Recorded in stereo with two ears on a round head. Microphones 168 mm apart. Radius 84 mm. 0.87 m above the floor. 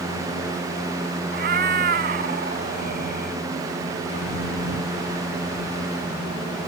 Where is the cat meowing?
55° right (ahead or behind).